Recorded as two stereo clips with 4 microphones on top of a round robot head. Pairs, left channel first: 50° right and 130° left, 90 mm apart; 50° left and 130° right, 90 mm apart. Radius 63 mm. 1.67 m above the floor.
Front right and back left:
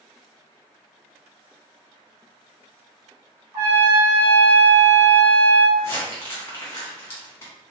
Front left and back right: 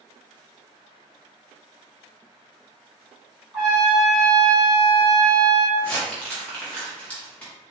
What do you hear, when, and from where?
3.5 s a trumpet: 140° left, 1.4 m
5.8 s crumpling: 10° right, 0.9 m